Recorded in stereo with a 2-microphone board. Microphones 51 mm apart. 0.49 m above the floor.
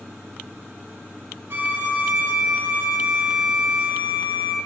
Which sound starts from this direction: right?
A violin, at 1.5 s.